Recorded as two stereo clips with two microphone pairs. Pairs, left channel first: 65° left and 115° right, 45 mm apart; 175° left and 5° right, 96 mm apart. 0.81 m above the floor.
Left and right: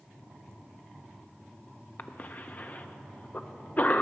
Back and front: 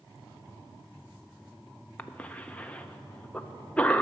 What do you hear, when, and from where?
2.0 s a cough: 100° left, 0.6 m